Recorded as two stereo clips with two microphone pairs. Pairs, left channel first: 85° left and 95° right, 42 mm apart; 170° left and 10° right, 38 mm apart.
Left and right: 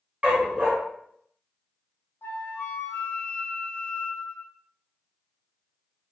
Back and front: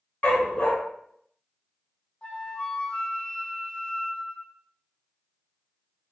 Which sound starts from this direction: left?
A flute, at 2.2 s.